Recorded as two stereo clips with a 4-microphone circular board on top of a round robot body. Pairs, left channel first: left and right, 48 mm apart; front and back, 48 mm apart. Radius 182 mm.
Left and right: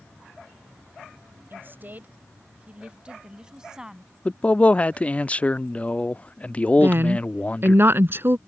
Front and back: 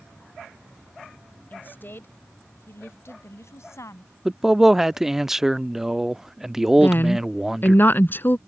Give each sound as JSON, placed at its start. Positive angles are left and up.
{"t": 1.5, "sound": "a woman speaking", "azimuth_deg": -50}
{"t": 4.2, "sound": "a man speaking", "azimuth_deg": 105}
{"t": 6.8, "sound": "a woman speaking", "azimuth_deg": -50}